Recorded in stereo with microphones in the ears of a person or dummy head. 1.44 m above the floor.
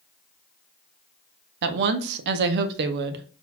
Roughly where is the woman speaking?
Right.